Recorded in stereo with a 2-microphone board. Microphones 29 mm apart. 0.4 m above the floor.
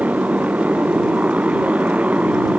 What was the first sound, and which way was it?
A motorcycle, 55° right (ahead or behind).